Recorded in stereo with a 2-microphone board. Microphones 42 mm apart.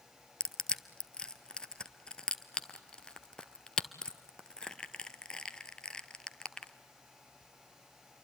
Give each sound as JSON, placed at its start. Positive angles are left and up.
{"t": 0.4, "sound": "crushing", "side_deg": 20, "distance_m": 0.8}